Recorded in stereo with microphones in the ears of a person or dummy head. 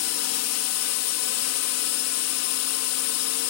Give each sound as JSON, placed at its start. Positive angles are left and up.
{"t": 0.0, "sound": "a drone", "side_deg": 75}